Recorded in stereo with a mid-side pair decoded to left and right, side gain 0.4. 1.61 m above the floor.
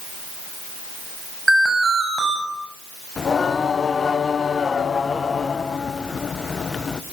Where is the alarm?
15° right, 8.5 m.